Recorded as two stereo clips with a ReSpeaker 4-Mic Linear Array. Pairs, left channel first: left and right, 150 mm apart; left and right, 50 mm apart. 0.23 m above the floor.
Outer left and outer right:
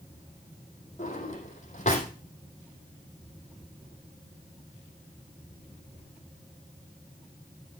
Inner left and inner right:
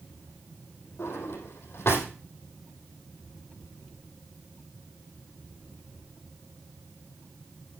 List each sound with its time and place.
1.0 s a drawer: 50° left (ahead or behind), 4 m